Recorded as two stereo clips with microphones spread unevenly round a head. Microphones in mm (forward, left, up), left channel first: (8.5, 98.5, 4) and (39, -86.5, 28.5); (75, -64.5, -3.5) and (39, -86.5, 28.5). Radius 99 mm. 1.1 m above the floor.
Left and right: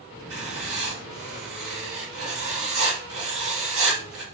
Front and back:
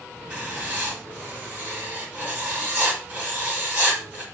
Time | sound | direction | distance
0.3 | writing | 105° right | 3.5 m